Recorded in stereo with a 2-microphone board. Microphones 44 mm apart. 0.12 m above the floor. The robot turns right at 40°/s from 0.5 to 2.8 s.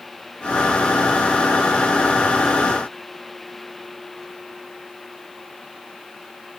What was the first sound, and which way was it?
Only background noise.